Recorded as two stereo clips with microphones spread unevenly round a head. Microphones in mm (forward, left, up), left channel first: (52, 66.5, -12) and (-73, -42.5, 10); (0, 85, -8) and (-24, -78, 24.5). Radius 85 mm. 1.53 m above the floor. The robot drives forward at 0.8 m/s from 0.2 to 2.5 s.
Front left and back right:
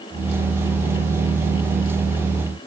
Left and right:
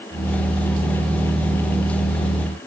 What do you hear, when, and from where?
Only background noise.